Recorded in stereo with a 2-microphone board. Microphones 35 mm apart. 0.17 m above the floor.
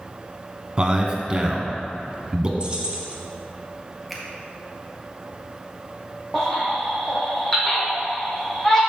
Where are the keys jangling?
30° right (ahead or behind), 1.4 m.